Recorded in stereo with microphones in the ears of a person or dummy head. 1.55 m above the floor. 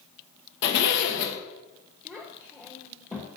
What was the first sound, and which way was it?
A zipper, 70° left (ahead or behind).